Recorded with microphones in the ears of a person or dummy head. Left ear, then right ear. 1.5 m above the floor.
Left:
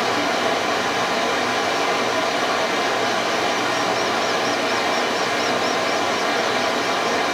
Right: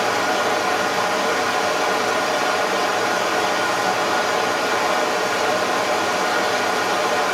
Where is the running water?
35° right (ahead or behind), 2 m.